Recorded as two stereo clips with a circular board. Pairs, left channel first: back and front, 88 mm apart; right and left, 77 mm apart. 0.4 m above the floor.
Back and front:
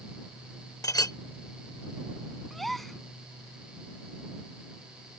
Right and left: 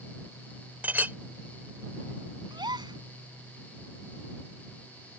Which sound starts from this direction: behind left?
A clink, at 0.8 s.